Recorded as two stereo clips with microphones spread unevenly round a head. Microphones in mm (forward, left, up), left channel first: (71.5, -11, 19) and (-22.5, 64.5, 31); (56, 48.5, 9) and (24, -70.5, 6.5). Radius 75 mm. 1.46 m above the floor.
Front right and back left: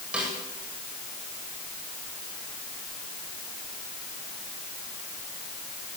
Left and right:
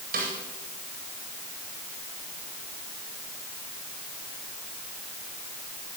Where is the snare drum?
135° right, 8.5 m.